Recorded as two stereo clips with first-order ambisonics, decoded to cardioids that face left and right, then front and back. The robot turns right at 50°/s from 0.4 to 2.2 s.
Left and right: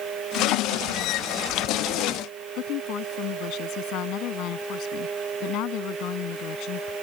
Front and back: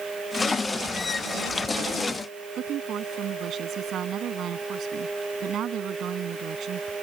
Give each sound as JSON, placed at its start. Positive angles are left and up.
{"t": 2.6, "sound": "a woman speaking", "azimuth_deg": 125}